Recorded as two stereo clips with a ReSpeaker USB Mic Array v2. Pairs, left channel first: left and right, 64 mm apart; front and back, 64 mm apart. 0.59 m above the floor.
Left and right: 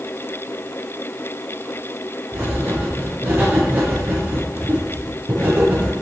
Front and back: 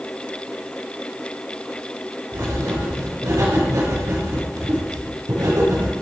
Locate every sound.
2.3 s writing: 145° right, 5.5 m